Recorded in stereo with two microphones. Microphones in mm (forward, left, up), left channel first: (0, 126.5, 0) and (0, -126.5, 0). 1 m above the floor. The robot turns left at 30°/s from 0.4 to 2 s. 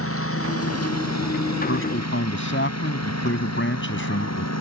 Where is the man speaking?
55° left (ahead or behind); by 4.5 s 45° left (ahead or behind).